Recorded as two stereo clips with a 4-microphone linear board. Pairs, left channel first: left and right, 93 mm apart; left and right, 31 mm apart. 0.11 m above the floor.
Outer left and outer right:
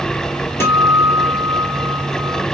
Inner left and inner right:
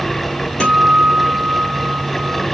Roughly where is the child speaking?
No child speaking in this recording.